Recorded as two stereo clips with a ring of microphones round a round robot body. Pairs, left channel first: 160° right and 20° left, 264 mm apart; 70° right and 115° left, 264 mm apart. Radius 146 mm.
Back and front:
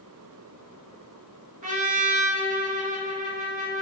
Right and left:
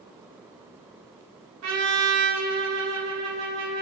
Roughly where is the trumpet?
Left.